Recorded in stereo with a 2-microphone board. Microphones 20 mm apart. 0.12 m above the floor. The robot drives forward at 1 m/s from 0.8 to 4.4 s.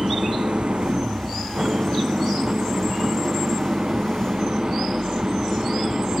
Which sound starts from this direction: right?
An engine running, at 0.0 s.